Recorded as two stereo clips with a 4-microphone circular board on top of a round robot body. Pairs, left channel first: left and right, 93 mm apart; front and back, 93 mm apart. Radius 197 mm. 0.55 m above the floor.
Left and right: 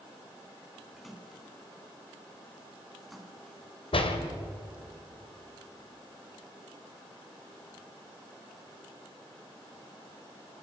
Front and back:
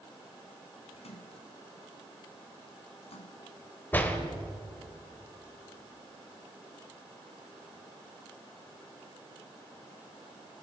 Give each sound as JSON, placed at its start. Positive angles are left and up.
{"t": 1.0, "sound": "a splash", "azimuth_deg": 0, "distance_m": 3.0}
{"t": 3.9, "sound": "a door slam", "azimuth_deg": 70, "distance_m": 2.5}